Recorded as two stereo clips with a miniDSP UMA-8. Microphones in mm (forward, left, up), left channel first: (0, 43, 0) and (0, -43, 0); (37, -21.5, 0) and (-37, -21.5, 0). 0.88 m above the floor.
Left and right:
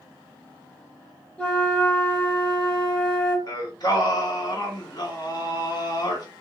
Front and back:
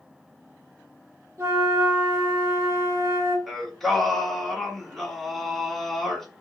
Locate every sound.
1.4 s a flute: 155° left, 1.0 m
3.5 s singing: 85° left, 1.1 m